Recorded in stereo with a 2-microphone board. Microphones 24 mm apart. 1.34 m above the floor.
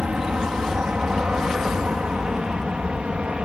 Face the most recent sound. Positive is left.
turn(degrees=-50)  # may be behind; listen again after turning